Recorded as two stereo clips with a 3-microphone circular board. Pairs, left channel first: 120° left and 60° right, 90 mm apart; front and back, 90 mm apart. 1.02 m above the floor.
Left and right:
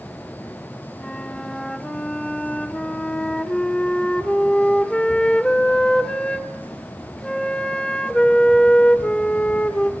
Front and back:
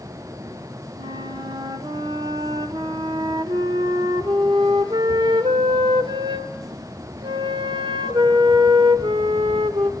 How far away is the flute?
About 1.4 m.